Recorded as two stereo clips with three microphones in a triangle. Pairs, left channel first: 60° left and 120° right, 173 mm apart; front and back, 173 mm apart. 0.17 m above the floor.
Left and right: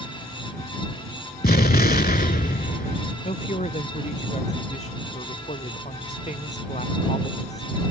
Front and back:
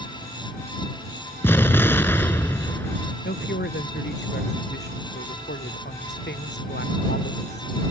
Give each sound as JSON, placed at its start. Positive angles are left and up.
{"t": 1.4, "sound": "an explosion", "azimuth_deg": 75}
{"t": 3.2, "sound": "a woman speaking", "azimuth_deg": 10}